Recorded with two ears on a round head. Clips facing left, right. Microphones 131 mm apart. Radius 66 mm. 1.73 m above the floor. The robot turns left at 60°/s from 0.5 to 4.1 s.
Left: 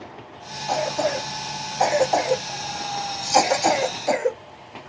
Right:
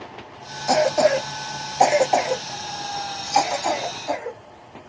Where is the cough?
80° right, 1.0 m; by 4.4 s 75° left (ahead or behind), 1.0 m.